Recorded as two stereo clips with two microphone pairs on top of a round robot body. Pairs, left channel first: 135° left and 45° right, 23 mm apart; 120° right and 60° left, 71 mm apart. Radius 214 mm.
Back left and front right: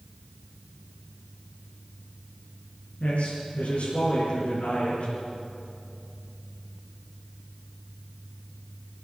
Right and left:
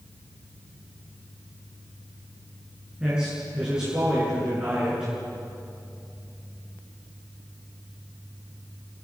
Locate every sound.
3.0 s a man speaking: 140° left, 8 m